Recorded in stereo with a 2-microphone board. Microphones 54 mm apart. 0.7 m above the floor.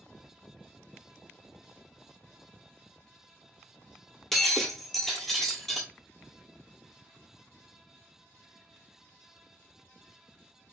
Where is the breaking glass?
5° left (ahead or behind), 0.9 m.